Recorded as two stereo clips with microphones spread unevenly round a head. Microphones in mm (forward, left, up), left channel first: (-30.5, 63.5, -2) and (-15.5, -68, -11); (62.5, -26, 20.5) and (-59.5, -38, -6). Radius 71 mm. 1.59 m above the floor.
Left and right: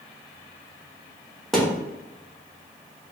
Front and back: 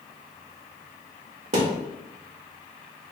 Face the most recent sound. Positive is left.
turn(degrees=180)